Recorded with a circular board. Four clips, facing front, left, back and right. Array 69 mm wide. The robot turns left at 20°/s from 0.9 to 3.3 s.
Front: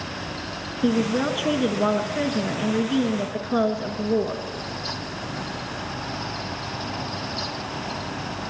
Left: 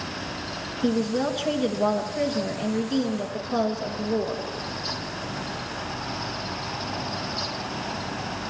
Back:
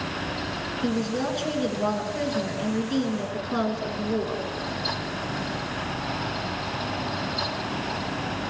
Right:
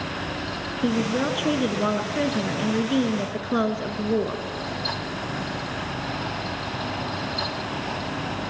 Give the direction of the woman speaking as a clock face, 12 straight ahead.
1 o'clock.